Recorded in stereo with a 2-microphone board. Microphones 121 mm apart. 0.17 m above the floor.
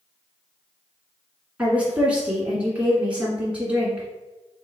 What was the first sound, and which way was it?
A woman speaking, 10° right (ahead or behind).